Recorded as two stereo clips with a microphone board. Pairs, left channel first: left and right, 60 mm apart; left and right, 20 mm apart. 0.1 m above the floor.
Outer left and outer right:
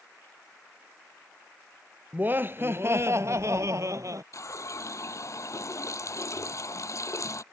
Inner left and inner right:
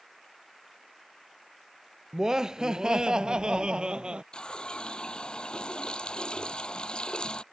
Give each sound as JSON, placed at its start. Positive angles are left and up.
{"t": 2.1, "sound": "laughter", "side_deg": -30}
{"t": 4.3, "sound": "a running tap", "side_deg": 55}